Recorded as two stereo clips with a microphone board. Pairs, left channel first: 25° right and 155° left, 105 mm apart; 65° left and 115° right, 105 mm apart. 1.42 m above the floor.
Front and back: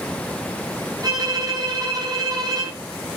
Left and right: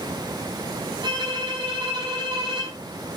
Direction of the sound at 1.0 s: 155° right.